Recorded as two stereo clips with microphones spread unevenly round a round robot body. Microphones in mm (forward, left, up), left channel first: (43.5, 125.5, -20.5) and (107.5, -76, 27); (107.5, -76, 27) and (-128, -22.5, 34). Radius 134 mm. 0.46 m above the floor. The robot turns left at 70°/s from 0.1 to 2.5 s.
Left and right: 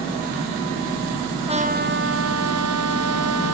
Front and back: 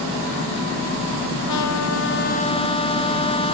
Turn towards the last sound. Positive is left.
turn(degrees=-80)